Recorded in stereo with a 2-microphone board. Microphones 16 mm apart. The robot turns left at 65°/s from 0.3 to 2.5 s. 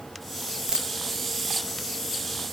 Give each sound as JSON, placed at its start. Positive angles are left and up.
{"t": 0.7, "sound": "a dropped coin", "side_deg": -35}